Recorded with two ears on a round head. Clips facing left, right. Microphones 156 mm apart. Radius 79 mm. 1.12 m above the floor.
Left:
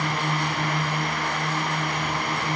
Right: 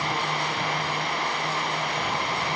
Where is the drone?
40° left (ahead or behind).